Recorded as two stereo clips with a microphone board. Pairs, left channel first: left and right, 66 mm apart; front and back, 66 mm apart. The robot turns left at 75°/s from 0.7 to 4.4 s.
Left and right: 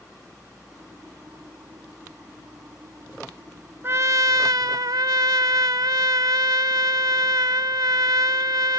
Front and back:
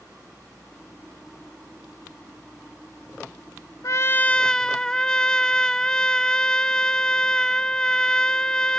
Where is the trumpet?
35° right; by 8.8 s 80° right.